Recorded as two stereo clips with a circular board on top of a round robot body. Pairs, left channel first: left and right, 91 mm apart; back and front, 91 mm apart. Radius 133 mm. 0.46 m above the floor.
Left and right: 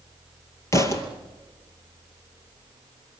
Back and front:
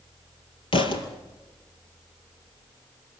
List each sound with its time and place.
0.7 s a thud: 150° left, 2.5 m